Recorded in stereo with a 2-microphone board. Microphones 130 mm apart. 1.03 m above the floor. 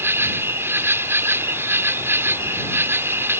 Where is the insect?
20° right (ahead or behind).